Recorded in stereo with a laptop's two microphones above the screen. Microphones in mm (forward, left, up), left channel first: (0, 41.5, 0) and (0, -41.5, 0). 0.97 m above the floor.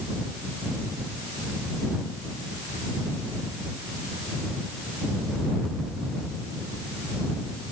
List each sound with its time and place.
Only background noise.